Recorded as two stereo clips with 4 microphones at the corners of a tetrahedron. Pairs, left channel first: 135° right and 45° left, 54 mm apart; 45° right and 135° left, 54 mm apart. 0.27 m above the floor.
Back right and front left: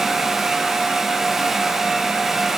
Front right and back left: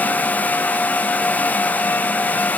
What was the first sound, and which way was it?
Only background noise.